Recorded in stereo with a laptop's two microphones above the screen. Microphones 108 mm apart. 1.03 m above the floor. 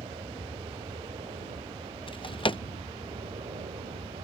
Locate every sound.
0.0 s an aircraft: 65° right (ahead or behind)
2.1 s a drawer: 50° left (ahead or behind)